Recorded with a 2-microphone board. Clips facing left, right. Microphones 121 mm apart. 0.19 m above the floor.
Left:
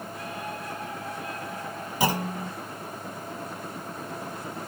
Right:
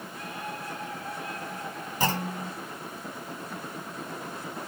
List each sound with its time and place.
2.0 s a clunk: 10° left (ahead or behind), 1.1 m